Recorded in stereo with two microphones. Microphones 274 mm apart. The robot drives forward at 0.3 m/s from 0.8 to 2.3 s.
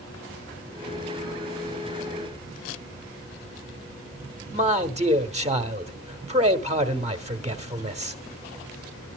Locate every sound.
4.5 s a man speaking: 25° right (ahead or behind), 1.2 m